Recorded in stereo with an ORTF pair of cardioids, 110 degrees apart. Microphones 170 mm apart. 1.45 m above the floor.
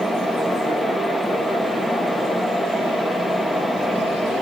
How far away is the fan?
About 1.0 m.